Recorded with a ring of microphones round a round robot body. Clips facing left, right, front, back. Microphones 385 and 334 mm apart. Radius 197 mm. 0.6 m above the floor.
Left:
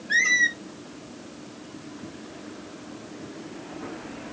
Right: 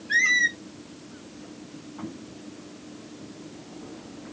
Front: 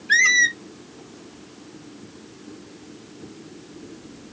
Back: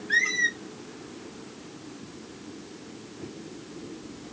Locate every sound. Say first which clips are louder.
0.1 s a squeak: left 2 dB, front 1 dB; straight ahead, 0.5 m